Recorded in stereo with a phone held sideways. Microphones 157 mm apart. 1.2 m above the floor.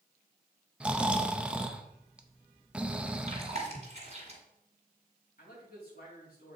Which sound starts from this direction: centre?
Snoring, at 0.8 s.